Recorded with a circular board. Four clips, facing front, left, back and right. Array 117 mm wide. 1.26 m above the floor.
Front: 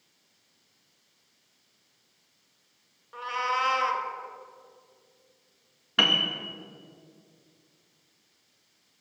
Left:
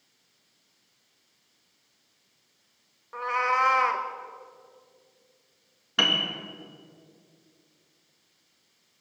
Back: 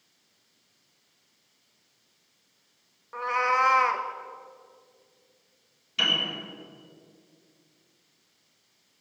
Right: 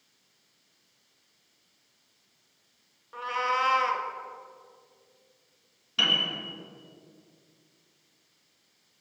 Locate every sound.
3.1 s a cat meowing: 140° left, 1.1 m
6.0 s a piano: 35° left, 1.5 m